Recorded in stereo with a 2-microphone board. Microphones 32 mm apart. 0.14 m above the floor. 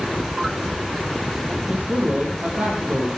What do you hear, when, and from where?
1.7 s a man speaking: 65° right (ahead or behind), 4.5 m; by 3.1 s 70° right (ahead or behind), 5 m